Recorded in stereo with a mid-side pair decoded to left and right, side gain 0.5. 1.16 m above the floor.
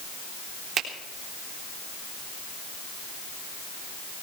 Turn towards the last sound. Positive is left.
turn(degrees=-55)